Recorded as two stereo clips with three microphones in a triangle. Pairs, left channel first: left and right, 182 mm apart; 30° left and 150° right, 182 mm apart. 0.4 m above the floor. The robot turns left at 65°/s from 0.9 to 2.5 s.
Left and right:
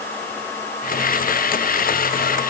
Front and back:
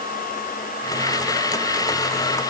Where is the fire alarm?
I don't hear a fire alarm.